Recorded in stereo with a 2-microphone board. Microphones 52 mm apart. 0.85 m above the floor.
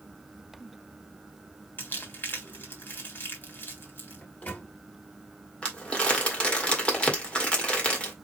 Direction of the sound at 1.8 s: 45° left (ahead or behind).